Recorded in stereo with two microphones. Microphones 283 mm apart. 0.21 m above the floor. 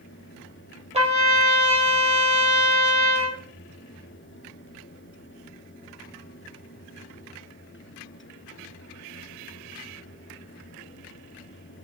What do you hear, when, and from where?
0.9 s a trumpet: 20° right (ahead or behind), 3 m